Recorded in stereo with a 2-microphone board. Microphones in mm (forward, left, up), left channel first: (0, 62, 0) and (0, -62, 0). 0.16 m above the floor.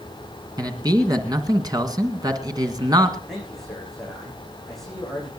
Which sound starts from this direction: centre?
A man speaking, at 3.3 s.